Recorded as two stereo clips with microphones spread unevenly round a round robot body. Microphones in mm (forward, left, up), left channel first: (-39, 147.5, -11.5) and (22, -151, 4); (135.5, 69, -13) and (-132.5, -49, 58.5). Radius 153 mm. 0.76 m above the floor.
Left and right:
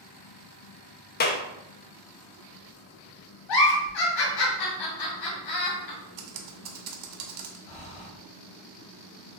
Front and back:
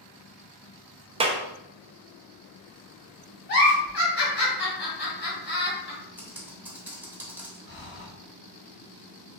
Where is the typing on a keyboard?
75° right, 0.8 m.